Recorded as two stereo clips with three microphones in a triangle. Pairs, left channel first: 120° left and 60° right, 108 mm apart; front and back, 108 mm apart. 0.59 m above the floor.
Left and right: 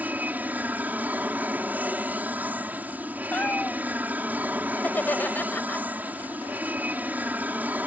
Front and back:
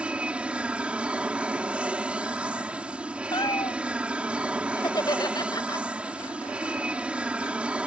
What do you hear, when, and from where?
0.0 s an aircraft: 115° right
3.3 s a cat meowing: 45° left
4.8 s laughter: 50° left